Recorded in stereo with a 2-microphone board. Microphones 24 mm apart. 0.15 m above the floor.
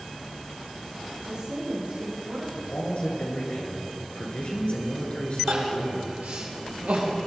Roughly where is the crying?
Right.